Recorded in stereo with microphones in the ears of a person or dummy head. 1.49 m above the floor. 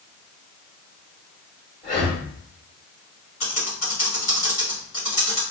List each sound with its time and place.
1.8 s breathing: 25° left (ahead or behind), 1.6 m
3.4 s typing on a keyboard: 35° left (ahead or behind), 1.4 m